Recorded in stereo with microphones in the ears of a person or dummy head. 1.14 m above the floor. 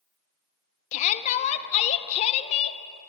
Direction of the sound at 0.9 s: 40° left (ahead or behind).